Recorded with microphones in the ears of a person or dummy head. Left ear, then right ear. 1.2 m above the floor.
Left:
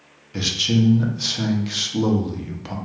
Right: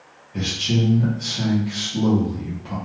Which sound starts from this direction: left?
A man speaking, at 0.3 s.